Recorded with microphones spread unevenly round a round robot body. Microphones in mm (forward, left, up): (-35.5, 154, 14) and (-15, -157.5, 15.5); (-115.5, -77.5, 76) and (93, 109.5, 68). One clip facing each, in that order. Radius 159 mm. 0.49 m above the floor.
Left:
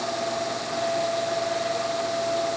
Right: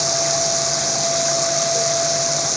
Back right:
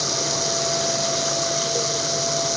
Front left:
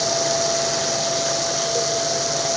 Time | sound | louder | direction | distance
0.0 | running water | right 4 dB, front left 4 dB | 60° right | ?